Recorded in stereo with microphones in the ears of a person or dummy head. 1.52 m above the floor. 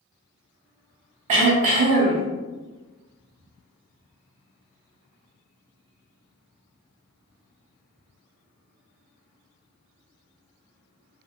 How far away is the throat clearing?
About 0.6 m.